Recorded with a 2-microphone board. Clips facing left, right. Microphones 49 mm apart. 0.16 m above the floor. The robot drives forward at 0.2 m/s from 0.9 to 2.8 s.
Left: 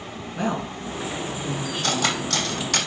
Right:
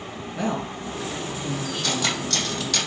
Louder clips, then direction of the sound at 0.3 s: Left 1 dB; 20° left (ahead or behind).